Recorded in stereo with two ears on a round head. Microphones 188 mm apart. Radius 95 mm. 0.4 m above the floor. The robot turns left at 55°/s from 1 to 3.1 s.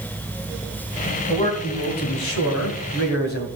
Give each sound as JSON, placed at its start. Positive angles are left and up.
{"t": 1.3, "sound": "a man speaking", "azimuth_deg": 155, "distance_m": 2.5}